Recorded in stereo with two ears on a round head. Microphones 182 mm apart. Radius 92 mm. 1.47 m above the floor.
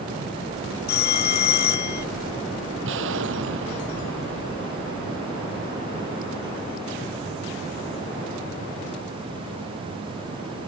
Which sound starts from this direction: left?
A phone ringing, at 0.9 s.